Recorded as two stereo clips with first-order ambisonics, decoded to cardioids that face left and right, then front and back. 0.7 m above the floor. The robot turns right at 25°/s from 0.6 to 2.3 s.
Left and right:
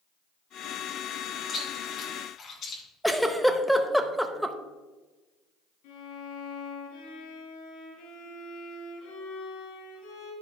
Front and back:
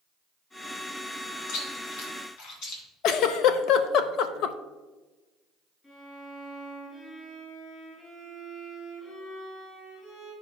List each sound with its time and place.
1.5 s chewing: 10° left, 2 m; by 2.8 s 30° left, 2 m
3.0 s a giggle: 5° right, 0.5 m
5.8 s a violin: 80° left, 4 m